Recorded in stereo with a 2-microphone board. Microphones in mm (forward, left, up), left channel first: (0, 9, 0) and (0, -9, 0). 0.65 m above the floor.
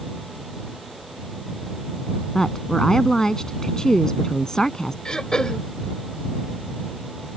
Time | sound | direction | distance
2.4 | a woman speaking | 40° left (ahead or behind) | ?
5.0 | throat clearing | 50° left (ahead or behind) | ?